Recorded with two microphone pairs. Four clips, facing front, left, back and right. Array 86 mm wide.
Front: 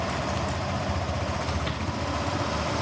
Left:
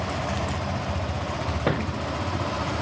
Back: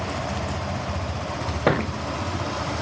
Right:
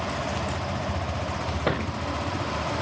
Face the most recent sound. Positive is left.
turn(degrees=180)